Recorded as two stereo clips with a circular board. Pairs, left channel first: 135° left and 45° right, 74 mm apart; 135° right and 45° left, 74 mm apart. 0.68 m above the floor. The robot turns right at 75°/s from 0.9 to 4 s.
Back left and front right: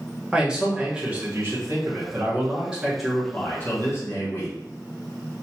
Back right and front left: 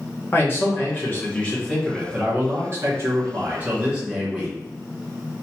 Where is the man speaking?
115° right, 1.1 m; by 4.5 s 115° left, 1.1 m.